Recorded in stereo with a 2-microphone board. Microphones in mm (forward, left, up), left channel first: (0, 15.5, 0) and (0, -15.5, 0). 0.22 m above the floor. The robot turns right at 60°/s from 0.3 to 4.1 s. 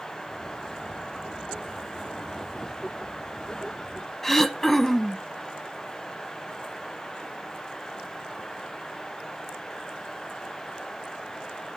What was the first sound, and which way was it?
Throat clearing, 10° left (ahead or behind).